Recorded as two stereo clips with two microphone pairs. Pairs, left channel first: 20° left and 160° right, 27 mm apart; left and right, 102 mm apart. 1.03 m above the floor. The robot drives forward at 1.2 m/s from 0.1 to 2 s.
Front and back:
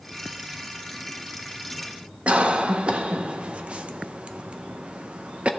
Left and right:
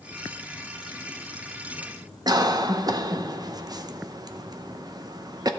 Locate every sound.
2.3 s a cough: 130° right, 0.8 m